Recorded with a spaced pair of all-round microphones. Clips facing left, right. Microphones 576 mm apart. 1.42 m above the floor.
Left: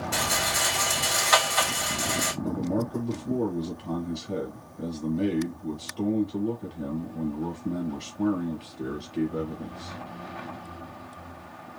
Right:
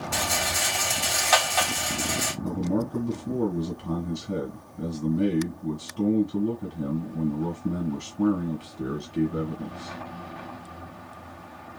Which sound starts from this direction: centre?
A rattle, at 0.1 s.